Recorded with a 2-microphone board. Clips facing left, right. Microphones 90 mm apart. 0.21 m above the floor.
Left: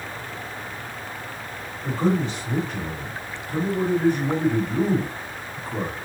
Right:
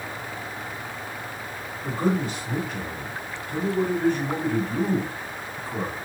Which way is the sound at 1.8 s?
10° right (ahead or behind).